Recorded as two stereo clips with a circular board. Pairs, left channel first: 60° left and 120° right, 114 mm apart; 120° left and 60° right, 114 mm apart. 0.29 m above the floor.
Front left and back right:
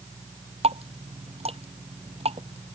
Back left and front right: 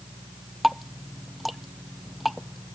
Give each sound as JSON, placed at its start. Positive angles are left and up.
{"t": 0.6, "sound": "dripping", "azimuth_deg": -150}